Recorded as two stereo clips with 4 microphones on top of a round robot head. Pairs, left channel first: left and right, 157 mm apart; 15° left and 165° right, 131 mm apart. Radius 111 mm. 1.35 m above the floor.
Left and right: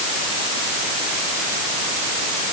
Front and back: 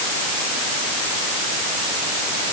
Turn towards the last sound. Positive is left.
No sound to turn to.